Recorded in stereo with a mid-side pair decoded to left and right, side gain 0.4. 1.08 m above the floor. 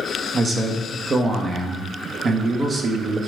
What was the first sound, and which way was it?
A man speaking, 40° right.